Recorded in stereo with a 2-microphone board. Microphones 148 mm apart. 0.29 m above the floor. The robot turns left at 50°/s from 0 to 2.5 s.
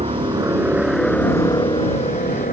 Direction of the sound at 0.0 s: 45° right (ahead or behind).